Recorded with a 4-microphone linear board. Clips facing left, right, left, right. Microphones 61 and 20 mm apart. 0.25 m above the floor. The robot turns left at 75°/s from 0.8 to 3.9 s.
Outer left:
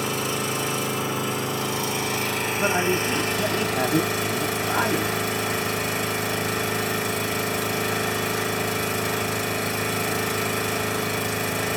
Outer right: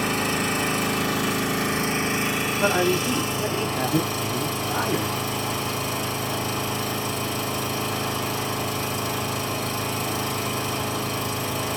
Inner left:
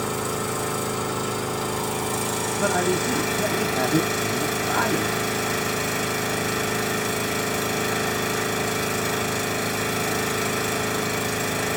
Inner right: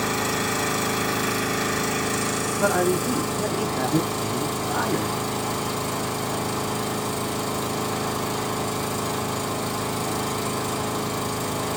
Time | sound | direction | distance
0.0 | an engine running | 50° right | 1.6 m
2.6 | a man speaking | 155° right | 1.4 m